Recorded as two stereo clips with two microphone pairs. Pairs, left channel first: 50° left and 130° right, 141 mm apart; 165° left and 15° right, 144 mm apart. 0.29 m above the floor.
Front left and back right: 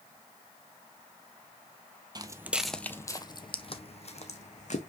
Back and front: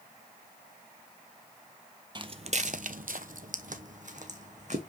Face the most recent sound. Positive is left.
turn(degrees=20)